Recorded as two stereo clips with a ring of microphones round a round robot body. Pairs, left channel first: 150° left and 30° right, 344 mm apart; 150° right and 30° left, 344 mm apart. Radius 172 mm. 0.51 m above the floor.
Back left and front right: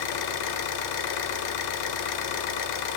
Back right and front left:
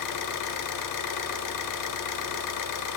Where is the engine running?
175° left, 0.7 m.